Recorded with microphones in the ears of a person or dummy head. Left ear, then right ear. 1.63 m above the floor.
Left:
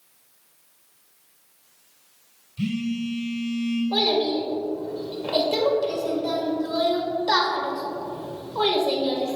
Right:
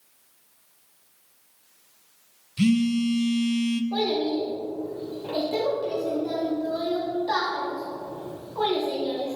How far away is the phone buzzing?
About 0.6 m.